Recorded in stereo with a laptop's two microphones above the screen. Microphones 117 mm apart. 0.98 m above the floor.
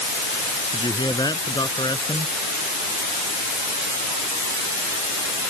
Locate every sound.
0.7 s a man speaking: 35° left (ahead or behind)